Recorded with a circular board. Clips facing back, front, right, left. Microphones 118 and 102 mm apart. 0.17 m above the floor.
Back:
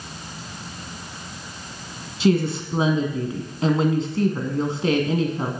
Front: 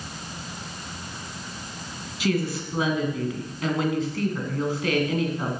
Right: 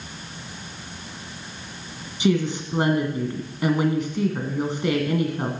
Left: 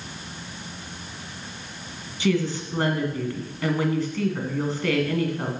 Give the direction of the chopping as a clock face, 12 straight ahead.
I don't hear chopping.